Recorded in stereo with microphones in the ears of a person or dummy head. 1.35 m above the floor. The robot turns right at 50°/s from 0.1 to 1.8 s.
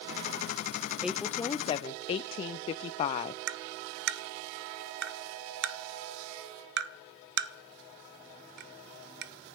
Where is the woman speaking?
Straight ahead, 0.5 m; by 3.4 s 40° left, 0.5 m.